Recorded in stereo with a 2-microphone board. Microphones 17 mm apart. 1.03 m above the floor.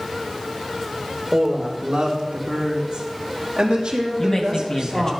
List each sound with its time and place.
1.3 s a woman speaking: 60° right (ahead or behind), 1.0 m
4.2 s a man speaking: 30° left (ahead or behind), 1.2 m